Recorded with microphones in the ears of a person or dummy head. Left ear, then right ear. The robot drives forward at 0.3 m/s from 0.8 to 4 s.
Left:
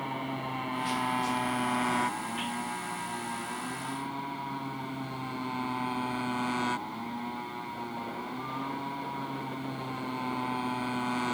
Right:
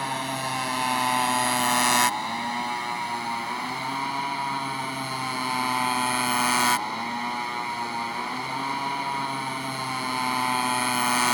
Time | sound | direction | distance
0.0 | a motorcycle | 70° right (ahead or behind) | ?